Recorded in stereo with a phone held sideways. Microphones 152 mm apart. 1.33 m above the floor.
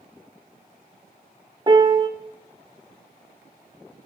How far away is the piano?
About 1.0 m.